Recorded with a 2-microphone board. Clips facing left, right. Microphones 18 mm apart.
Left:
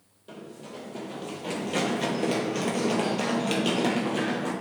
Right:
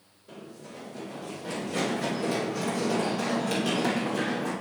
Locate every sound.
0.3 s running footsteps: 55° left (ahead or behind), 3 m; by 4.5 s 20° left (ahead or behind), 2.5 m